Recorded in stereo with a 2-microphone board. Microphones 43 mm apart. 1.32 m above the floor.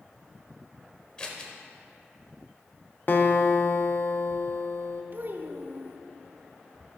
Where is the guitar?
50° left (ahead or behind), 0.7 m.